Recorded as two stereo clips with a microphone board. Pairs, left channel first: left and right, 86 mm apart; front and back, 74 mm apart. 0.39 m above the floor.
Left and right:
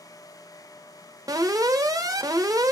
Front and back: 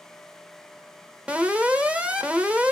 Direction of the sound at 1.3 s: 110° right.